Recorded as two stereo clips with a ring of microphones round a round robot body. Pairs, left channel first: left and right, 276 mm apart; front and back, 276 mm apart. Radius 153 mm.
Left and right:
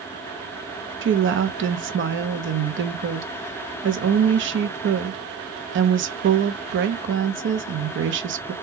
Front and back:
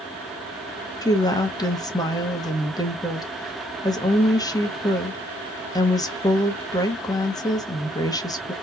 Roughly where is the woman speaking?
Right.